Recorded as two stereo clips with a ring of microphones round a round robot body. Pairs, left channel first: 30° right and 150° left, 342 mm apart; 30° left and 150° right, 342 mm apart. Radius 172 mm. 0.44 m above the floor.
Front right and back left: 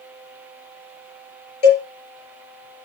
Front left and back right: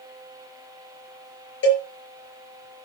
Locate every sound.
1.6 s a cowbell: 30° right, 5 m